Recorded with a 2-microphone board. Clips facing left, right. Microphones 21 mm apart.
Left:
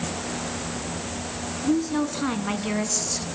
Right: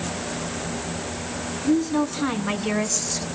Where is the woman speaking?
Centre (ahead or behind), 2.5 m; by 3.3 s 15° right (ahead or behind), 1.3 m.